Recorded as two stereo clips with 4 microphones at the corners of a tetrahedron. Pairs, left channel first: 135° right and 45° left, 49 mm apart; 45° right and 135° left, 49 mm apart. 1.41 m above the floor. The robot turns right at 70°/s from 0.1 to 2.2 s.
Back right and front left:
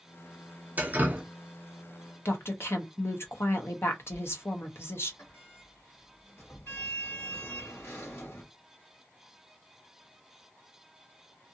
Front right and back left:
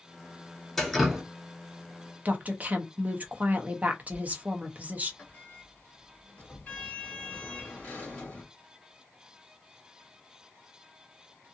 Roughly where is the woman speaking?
Behind.